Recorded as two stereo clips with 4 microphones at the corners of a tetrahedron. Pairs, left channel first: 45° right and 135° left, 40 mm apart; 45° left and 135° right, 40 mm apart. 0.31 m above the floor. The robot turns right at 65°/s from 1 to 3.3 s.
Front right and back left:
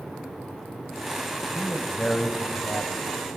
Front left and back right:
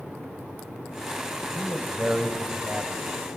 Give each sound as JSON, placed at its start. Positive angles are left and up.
{"t": 1.6, "sound": "a man speaking", "azimuth_deg": -125, "distance_m": 1.4}